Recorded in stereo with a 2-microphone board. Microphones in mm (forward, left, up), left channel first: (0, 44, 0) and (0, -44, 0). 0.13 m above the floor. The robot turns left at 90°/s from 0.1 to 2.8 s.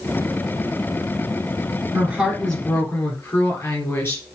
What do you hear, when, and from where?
1.9 s a woman speaking: 140° right, 2 m; by 4.2 s 140° left, 2 m